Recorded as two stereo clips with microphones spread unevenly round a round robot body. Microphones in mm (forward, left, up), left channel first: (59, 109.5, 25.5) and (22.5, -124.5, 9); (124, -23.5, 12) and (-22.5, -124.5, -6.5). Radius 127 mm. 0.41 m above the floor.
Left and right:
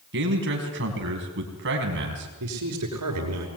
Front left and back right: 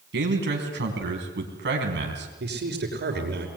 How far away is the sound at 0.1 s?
About 4 m.